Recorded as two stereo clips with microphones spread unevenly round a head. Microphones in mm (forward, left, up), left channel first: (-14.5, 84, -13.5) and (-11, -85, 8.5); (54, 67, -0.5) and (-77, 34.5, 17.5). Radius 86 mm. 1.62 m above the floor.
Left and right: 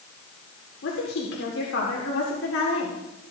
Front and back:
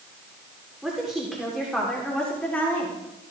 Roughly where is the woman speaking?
Left.